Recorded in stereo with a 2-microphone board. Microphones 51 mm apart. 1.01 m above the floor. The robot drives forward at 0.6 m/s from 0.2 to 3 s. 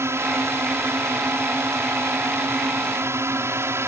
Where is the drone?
60° right (ahead or behind).